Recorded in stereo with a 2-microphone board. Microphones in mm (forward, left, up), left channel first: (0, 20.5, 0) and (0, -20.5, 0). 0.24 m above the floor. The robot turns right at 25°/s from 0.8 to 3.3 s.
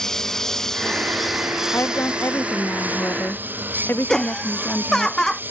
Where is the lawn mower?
10° left (ahead or behind); by 5.5 s 55° right (ahead or behind).